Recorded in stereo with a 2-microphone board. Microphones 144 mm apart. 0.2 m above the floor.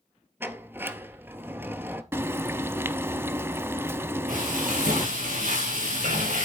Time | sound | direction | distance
0.4 | a sliding door | 15° right (ahead or behind) | 0.8 m
2.1 | frying | 20° right (ahead or behind) | 0.6 m
4.3 | frying | 85° right | 5.5 m